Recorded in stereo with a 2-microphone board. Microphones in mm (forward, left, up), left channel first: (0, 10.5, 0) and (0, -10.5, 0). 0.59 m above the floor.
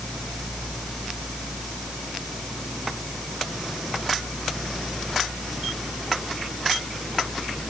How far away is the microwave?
I don't hear a microwave.